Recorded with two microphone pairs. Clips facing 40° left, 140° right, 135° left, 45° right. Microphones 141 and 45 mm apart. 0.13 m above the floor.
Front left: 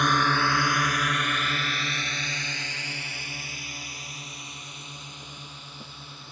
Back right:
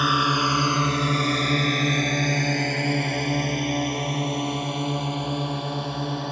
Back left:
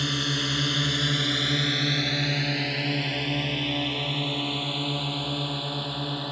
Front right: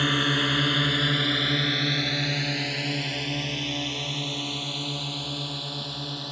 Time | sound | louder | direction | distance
0.0 | a drone | back right 1 dB, front right 4 dB | 60° right | ?